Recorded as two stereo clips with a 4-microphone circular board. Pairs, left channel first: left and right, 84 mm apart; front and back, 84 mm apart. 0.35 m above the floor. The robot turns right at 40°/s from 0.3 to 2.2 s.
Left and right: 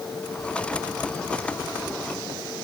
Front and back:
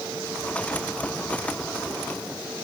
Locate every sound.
Only background noise.